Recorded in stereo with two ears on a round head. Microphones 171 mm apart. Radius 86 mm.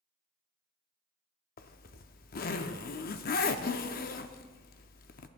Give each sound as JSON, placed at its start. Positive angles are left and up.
{"t": 1.6, "sound": "a zipper", "side_deg": 50, "distance_m": 0.6}